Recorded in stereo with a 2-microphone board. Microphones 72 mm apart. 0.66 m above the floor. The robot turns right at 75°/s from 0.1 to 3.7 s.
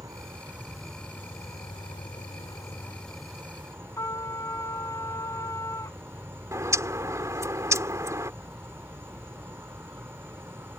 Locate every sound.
0.0 s an insect: 55° right; by 10.8 s 145° right
4.0 s a trumpet: 50° left (ahead or behind)
6.5 s a bird: 45° right (ahead or behind)